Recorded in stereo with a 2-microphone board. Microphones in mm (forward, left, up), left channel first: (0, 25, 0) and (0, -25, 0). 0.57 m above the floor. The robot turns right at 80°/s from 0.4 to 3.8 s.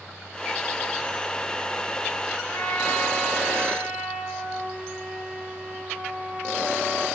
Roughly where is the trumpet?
Behind left.